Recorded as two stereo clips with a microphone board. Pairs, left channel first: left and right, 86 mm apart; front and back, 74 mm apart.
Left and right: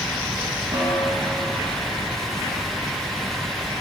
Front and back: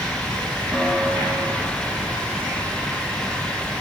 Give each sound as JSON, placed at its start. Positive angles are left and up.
{"t": 0.7, "sound": "a snare drum", "azimuth_deg": -85, "distance_m": 2.5}